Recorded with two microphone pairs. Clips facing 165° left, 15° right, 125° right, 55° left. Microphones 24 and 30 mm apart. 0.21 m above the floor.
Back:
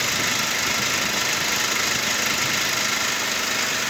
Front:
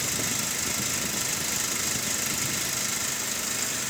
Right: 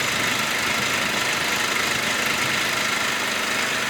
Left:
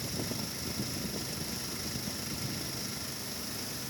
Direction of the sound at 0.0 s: 135° right.